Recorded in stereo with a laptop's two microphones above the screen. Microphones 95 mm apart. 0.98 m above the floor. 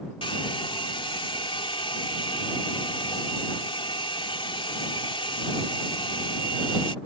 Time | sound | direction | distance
0.2 | a hair dryer | 65° left (ahead or behind) | ?